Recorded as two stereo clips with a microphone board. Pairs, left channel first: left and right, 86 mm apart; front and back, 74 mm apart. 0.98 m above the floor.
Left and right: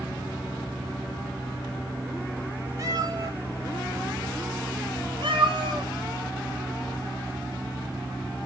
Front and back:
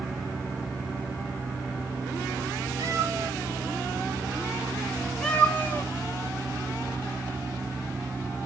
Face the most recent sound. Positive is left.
turn(degrees=-65)